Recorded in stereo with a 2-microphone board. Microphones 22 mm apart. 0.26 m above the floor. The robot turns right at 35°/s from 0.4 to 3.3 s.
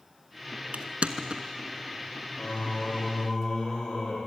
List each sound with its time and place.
0.7 s crushing: 70° right (ahead or behind), 0.8 m; by 1.4 s 45° right (ahead or behind), 0.8 m
2.4 s singing: 110° left, 6.5 m; by 4.2 s 140° left, 6.5 m